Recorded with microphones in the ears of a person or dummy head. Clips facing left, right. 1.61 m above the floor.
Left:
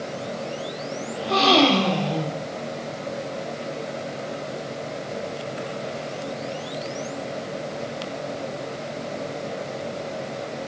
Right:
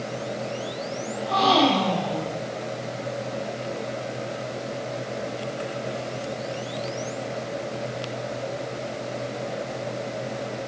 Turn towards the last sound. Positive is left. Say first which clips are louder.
# left 2 dB
turn(degrees=40)  # may be behind; listen again after turning